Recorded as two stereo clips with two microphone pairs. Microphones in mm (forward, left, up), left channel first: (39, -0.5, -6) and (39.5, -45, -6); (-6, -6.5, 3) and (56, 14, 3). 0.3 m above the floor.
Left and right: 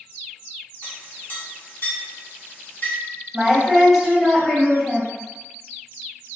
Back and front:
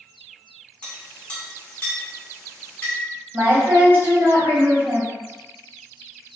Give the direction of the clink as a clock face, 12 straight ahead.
8 o'clock.